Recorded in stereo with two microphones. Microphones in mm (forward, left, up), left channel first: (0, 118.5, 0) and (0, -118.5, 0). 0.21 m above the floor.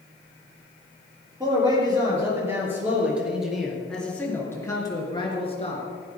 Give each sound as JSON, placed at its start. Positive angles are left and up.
{"t": 1.4, "sound": "a man speaking", "side_deg": -20, "distance_m": 5.0}